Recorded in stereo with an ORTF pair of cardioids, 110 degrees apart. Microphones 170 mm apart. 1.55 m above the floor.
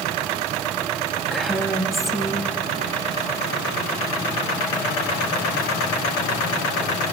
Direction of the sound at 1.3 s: Straight ahead.